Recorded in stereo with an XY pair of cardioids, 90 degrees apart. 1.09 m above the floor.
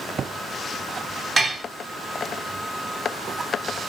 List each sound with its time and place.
1.4 s dishes clattering: 35° right, 1.6 m